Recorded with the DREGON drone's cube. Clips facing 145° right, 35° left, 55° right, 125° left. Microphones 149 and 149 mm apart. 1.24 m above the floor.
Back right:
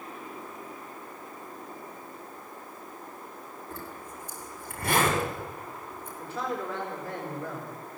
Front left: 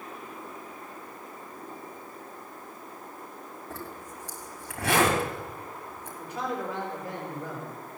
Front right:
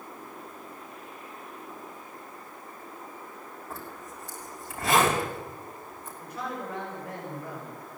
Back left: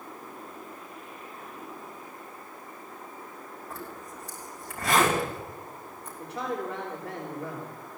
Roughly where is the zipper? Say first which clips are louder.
Front left 1 dB, back left 1 dB; ahead left.